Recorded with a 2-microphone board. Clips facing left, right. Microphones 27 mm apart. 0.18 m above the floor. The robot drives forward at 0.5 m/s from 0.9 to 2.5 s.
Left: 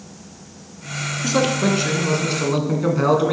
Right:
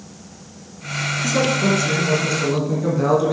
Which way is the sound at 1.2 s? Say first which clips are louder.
Even; 30° left (ahead or behind).